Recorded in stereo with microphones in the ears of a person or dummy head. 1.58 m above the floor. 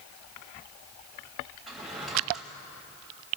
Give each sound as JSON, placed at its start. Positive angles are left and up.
{"t": 1.7, "sound": "a drawer", "side_deg": 0, "distance_m": 3.0}